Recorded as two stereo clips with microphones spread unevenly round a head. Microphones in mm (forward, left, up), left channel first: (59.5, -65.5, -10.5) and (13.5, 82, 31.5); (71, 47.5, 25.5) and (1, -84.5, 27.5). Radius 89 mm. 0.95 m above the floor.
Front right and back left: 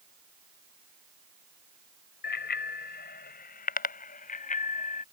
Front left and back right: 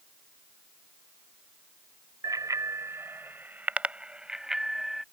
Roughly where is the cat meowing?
No cat meowing in this recording.